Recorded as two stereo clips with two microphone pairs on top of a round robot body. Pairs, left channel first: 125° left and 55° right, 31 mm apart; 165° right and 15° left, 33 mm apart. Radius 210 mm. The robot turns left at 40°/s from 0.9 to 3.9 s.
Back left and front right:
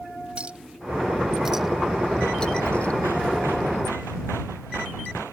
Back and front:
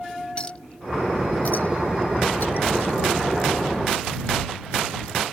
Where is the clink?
110° right; by 5.2 s 130° left.